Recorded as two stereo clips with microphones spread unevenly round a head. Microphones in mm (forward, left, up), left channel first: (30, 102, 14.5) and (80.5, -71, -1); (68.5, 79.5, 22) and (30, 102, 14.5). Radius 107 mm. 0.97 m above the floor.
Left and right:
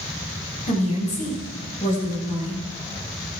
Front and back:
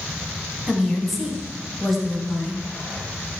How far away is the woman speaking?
About 6 m.